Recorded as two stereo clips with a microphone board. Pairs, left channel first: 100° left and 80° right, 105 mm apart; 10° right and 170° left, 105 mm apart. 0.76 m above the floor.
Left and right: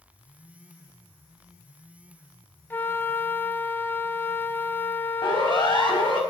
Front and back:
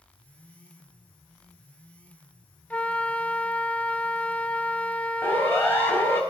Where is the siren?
60° left, 4.5 m.